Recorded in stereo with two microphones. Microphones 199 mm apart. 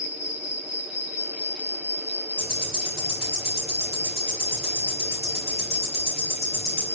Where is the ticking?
50° left (ahead or behind), 2.5 m.